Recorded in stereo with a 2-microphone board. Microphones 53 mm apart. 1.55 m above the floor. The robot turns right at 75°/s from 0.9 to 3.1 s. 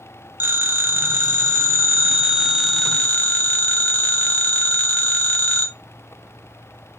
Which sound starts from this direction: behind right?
A phone ringing, at 0.4 s.